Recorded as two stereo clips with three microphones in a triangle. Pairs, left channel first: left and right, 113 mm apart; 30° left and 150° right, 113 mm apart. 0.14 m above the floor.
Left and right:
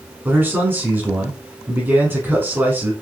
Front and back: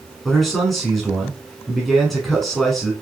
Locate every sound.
0.2 s a man speaking: 55° right, 1.5 m